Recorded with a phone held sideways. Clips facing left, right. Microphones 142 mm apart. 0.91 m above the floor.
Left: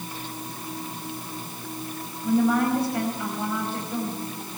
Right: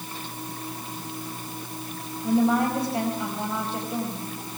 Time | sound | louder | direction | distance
2.2 | a woman speaking | even | 25° right (ahead or behind) | 5 m